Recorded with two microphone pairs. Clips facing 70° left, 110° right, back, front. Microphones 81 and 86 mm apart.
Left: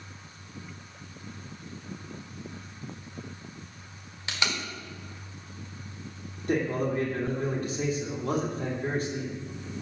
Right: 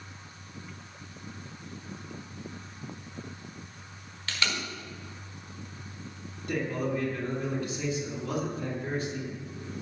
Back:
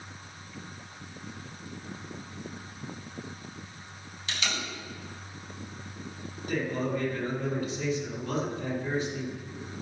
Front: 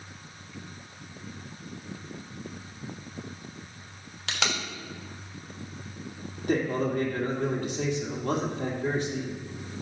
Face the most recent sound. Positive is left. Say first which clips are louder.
# left 3 dB, front 4 dB
turn(degrees=25)